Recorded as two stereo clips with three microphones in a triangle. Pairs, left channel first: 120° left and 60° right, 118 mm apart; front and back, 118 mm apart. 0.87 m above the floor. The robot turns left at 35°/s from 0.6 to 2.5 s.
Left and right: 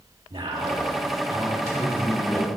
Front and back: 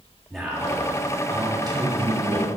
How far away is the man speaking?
About 2 m.